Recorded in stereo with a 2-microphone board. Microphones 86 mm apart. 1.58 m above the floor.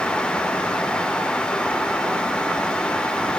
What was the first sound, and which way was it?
Only background noise.